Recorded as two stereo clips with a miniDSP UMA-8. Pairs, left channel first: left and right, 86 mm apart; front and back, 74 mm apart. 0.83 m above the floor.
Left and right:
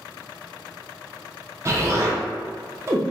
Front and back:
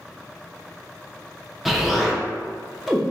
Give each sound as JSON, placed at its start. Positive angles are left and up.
{"t": 1.6, "sound": "an explosion", "azimuth_deg": -95, "distance_m": 0.6}